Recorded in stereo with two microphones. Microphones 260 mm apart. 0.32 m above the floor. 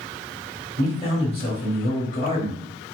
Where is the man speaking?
25° left (ahead or behind), 1.8 m.